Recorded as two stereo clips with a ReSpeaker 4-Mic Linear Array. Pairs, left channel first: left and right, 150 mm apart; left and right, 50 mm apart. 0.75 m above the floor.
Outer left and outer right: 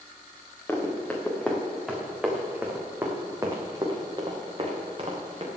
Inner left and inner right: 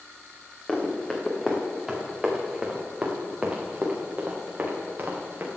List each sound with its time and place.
0.7 s running footsteps: 15° left (ahead or behind), 3 m; by 5.5 s 40° right (ahead or behind), 3.5 m